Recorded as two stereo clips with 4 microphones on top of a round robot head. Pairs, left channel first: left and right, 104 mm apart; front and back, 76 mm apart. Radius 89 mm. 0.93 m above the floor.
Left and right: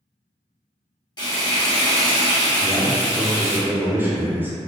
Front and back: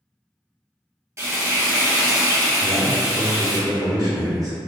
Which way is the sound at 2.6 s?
160° right.